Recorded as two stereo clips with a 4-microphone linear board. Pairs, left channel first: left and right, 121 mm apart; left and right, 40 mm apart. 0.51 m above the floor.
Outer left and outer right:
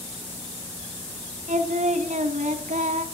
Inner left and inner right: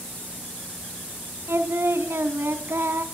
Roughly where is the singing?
Right.